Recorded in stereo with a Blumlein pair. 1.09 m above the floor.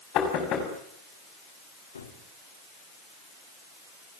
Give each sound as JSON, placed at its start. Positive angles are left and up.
{"t": 0.1, "sound": "knocking", "azimuth_deg": 35, "distance_m": 5.5}
{"t": 1.9, "sound": "a gunshot", "azimuth_deg": 70, "distance_m": 2.5}